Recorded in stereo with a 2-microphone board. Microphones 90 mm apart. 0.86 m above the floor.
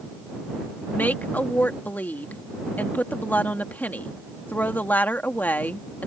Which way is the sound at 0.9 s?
20° left (ahead or behind).